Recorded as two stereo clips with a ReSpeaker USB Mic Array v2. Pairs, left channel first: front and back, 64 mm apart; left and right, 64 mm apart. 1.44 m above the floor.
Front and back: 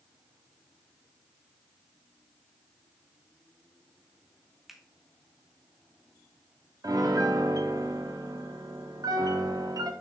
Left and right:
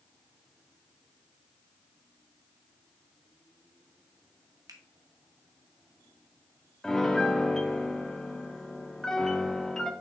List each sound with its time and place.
4.7 s a finger snap: 95° right, 0.9 m
6.8 s a piano: 170° left, 0.7 m